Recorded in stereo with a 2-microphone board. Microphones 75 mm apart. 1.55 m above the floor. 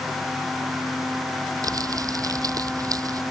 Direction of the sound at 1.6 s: 50° right (ahead or behind).